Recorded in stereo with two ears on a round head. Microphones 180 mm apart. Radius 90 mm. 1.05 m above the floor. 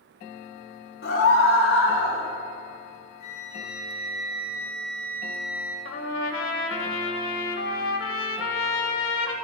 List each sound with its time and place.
1.0 s a scream: 70° left (ahead or behind), 3.5 m; by 2.2 s 80° left, 5 m
3.2 s a flute: 50° left (ahead or behind), 2.5 m
5.8 s a trumpet: 70° left (ahead or behind), 1.7 m